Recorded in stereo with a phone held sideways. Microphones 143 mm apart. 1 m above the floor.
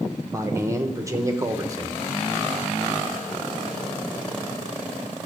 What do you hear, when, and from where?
0.3 s a man speaking: 20° right (ahead or behind), 0.9 m